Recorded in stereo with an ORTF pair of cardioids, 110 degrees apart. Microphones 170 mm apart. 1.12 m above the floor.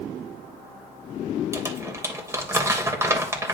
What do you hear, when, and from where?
1.5 s crumpling: 15° right, 3 m